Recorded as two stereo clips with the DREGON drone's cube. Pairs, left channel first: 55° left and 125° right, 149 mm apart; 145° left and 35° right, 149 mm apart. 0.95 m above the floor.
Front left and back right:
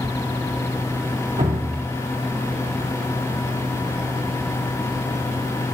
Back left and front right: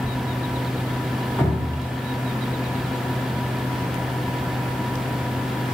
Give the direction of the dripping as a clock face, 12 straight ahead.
5 o'clock.